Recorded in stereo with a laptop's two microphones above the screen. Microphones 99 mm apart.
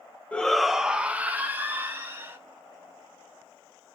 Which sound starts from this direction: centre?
A shout, at 0.3 s.